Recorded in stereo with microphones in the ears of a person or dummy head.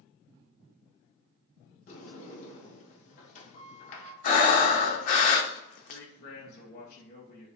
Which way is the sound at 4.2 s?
45° left (ahead or behind).